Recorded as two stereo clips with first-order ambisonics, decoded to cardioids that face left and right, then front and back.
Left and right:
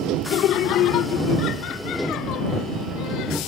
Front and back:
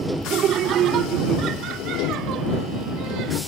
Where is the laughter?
130° left; by 3.4 s 135° left.